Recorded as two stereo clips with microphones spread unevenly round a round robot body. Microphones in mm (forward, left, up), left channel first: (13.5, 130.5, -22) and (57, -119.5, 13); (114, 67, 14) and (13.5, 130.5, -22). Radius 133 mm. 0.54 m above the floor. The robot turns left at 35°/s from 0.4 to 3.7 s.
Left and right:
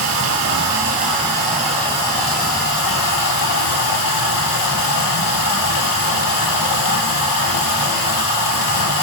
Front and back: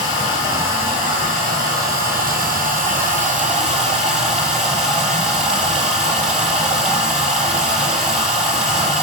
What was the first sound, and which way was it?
Running water, 125° right.